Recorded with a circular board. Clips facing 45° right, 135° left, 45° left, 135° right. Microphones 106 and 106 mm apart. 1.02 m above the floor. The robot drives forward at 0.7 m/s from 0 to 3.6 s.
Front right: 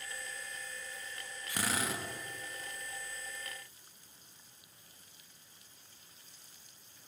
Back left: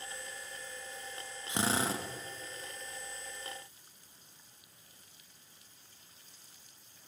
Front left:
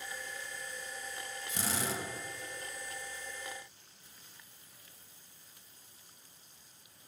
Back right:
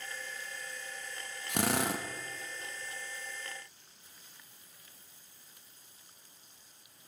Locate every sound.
1.5 s a drill: 155° right, 0.5 m; by 2.0 s 165° right, 0.9 m